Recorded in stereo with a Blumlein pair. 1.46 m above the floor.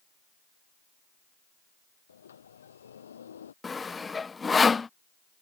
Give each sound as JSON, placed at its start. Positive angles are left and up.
{"t": 2.1, "sound": "a sliding door", "azimuth_deg": 70}
{"t": 3.6, "sound": "sawing", "azimuth_deg": 15}